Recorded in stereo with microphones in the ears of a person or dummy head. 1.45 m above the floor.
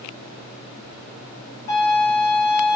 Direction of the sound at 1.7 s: 50° left (ahead or behind).